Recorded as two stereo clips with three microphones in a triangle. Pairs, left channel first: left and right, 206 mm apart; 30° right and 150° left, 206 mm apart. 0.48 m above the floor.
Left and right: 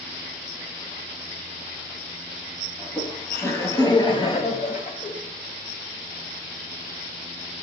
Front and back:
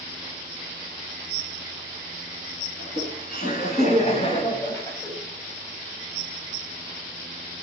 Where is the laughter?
5° left, 3.5 m; by 5.1 s 50° left, 2 m.